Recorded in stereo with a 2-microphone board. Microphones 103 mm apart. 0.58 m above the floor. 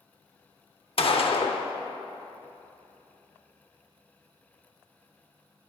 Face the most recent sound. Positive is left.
turn(degrees=65)  # may be behind; listen again after turning